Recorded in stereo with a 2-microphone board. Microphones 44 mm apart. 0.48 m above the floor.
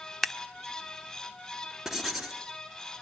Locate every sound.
0.2 s scissors: centre (ahead or behind), 1.0 m
1.9 s writing: 5° right (ahead or behind), 3.5 m